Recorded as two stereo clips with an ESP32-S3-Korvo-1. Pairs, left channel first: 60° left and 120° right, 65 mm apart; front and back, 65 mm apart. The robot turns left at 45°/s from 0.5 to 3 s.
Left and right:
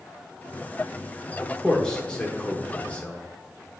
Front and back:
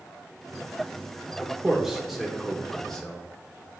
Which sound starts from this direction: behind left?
A man speaking, at 1.4 s.